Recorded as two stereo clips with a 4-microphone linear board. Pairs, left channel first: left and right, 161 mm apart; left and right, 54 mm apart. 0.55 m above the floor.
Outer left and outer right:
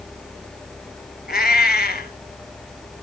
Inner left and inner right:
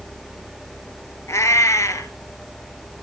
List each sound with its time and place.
1.3 s a cat meowing: 80° left, 2.0 m